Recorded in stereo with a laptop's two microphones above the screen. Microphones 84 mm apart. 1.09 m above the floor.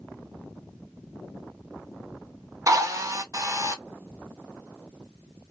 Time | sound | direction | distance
2.7 | a drill | 40° right (ahead or behind) | 0.7 m